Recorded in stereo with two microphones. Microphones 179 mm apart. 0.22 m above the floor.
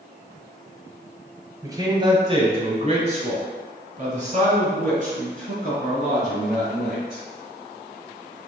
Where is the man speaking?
20° right (ahead or behind), 1.6 m; by 7.2 s 50° right (ahead or behind), 4.5 m.